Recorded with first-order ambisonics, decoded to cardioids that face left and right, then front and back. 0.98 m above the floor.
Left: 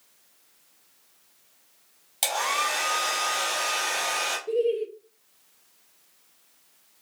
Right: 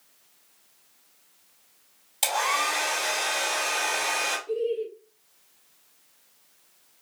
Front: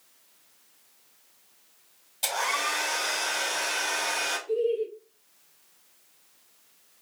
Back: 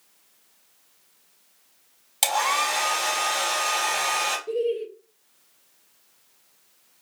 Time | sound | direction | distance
2.2 | a hair dryer | 170° left | 3.5 m
4.5 | laughter | 145° left | 0.8 m